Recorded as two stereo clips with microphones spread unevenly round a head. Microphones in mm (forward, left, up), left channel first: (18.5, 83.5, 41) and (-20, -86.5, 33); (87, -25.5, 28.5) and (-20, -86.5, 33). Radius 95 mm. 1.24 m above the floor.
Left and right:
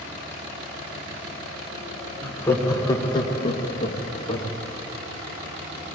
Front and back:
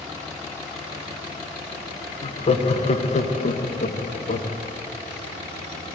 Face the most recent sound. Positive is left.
turn(degrees=20)